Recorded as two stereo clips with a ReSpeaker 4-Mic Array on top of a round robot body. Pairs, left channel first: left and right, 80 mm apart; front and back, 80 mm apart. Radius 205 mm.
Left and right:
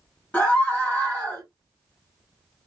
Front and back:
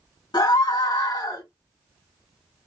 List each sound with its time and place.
0.3 s a scream: 15° left, 2.5 m